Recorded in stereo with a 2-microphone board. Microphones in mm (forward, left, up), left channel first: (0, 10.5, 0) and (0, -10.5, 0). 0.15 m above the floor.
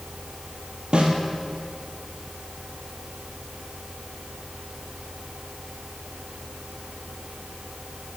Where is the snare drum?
60° right (ahead or behind), 1.3 m.